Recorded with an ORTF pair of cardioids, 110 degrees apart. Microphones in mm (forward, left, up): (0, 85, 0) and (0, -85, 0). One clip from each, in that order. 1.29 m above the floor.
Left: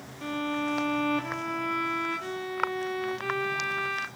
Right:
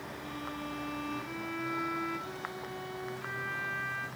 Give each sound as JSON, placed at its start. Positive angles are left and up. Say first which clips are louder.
{"t": 0.2, "sound": "a violin", "louder": "left 12 dB", "azimuth_deg": 65, "distance_m": 1.0}